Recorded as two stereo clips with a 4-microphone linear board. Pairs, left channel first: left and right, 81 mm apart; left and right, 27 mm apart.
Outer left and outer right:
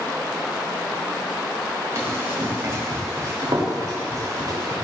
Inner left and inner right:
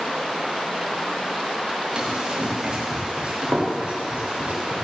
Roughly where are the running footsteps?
Right.